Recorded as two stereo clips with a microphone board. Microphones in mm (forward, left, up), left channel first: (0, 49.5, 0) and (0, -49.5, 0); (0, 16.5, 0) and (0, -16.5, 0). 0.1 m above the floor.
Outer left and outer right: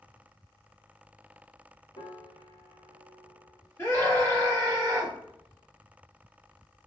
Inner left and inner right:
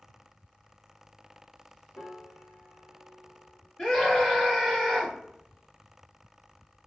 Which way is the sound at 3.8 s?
25° left (ahead or behind).